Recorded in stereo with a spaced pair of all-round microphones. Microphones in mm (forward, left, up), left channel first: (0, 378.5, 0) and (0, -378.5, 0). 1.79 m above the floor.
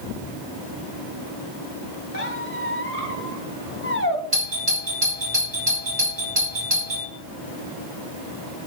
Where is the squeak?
15° left (ahead or behind), 2 m.